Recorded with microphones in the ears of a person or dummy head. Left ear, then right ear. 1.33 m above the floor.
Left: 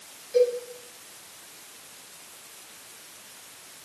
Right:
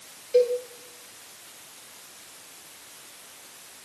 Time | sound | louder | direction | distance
0.3 | a cowbell | right 1 dB | 20° right (ahead or behind) | 0.8 m